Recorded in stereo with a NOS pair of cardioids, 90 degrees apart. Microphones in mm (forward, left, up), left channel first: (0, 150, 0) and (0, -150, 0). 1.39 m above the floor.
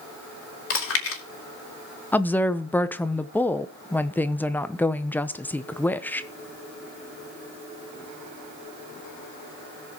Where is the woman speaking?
5° left, 0.7 m.